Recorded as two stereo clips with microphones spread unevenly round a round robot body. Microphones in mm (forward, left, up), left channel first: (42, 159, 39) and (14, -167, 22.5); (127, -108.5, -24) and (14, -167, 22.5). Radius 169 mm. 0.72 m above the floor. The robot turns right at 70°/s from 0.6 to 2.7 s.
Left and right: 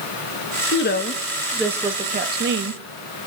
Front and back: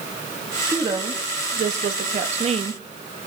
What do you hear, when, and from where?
0.7 s a woman speaking: 120° left, 0.9 m; by 3.2 s 105° right, 0.9 m